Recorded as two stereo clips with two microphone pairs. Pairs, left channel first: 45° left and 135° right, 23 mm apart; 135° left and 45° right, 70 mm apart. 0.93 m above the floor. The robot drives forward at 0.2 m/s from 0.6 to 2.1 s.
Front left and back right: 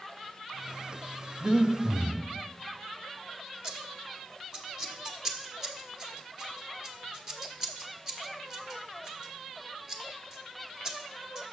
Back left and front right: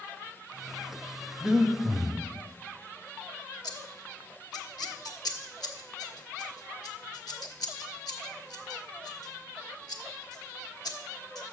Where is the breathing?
115° right, 0.7 m; by 2.2 s 130° right, 0.8 m.